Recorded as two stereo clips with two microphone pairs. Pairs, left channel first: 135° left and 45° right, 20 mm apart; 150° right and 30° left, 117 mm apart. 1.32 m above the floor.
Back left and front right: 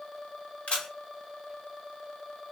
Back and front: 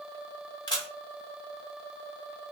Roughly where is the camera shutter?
Behind.